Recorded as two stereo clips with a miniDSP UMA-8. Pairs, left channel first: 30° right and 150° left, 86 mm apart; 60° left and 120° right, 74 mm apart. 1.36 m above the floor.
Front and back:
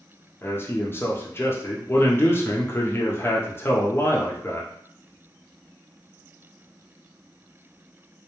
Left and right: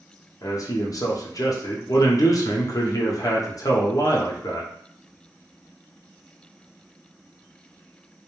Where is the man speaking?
30° left, 0.6 m.